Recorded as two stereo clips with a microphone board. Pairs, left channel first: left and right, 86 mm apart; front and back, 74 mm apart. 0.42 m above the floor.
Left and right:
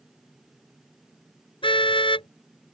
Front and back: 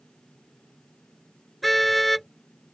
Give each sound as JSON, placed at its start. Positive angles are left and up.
{"t": 1.6, "sound": "a car horn", "azimuth_deg": 90}